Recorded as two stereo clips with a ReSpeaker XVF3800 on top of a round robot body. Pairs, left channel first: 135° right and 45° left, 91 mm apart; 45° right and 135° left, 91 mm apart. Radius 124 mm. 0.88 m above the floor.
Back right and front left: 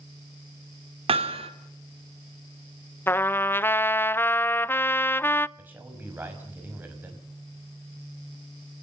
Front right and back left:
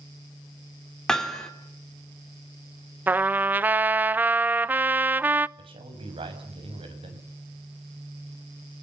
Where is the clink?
No clink in this recording.